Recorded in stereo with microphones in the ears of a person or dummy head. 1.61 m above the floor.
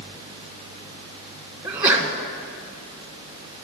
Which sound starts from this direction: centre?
A sneeze, at 1.6 s.